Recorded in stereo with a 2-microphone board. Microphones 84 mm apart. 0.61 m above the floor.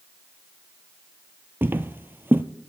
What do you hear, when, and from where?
1.6 s footsteps: 25° right (ahead or behind), 0.6 m